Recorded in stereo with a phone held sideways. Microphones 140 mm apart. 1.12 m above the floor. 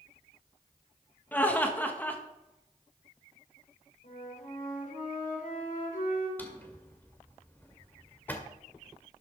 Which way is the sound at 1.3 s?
15° left (ahead or behind).